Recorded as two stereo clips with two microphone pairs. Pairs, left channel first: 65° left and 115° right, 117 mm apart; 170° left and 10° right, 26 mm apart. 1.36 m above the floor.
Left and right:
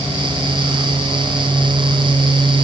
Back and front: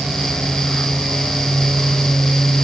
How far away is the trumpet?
No trumpet in this recording.